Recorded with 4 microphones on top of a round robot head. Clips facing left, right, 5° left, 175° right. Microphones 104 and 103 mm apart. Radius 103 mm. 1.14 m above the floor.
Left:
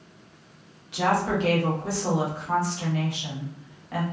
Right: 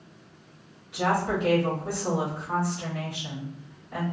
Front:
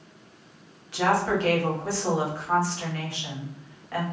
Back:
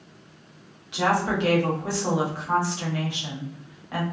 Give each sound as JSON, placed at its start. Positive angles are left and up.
{"t": 0.9, "sound": "a woman speaking", "azimuth_deg": 115, "distance_m": 1.1}